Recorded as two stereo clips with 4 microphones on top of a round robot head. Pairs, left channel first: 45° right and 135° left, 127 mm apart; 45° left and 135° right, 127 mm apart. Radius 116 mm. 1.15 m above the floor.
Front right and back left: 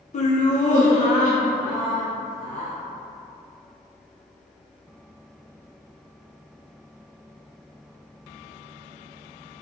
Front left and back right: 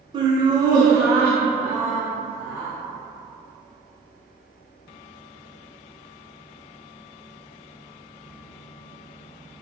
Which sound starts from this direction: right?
Laughter, at 0.1 s.